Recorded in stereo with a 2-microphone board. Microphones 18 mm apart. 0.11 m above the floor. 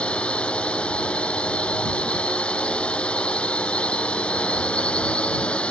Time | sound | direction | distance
0.0 | a drone | 75° left (ahead or behind) | ?